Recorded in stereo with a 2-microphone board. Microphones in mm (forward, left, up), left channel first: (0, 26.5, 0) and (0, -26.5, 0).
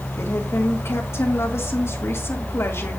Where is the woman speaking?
60° left (ahead or behind), 2.5 m.